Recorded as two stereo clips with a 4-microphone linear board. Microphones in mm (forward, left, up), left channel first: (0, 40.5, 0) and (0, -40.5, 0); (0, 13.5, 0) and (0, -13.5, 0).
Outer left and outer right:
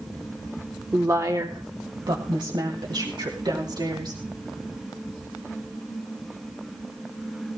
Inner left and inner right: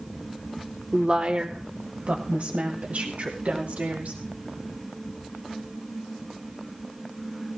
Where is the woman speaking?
30° right (ahead or behind), 0.9 m; by 4.2 s 65° right (ahead or behind), 4 m.